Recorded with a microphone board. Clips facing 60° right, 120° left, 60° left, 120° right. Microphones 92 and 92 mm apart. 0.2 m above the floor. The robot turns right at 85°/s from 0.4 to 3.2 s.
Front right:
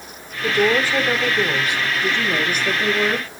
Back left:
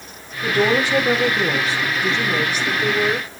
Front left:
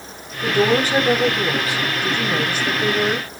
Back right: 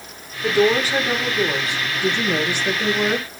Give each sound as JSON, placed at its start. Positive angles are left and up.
{"t": 0.4, "sound": "a woman speaking", "azimuth_deg": 70, "distance_m": 7.0}